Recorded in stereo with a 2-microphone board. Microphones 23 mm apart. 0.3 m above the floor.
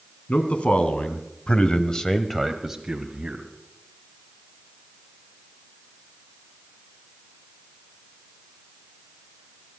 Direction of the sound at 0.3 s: 65° left (ahead or behind).